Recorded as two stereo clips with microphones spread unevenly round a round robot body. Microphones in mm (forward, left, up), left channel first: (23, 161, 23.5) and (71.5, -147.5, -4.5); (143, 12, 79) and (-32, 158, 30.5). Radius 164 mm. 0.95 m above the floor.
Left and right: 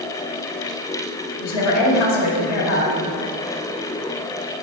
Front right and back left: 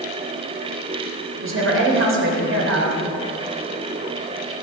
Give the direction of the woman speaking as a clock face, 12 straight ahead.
8 o'clock.